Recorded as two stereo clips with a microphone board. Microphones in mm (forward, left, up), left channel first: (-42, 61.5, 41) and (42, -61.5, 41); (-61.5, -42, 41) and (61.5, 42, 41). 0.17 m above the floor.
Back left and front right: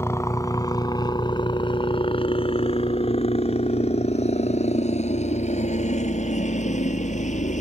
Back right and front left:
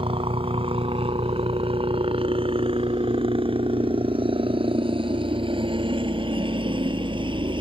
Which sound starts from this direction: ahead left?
A helicopter, at 0.0 s.